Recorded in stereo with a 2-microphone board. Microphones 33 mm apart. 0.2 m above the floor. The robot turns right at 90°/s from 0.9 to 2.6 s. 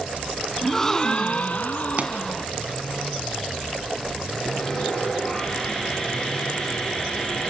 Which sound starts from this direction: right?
A pop, at 2.0 s.